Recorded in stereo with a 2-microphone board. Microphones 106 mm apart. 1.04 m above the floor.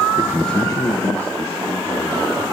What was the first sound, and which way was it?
A man speaking, 35° right (ahead or behind).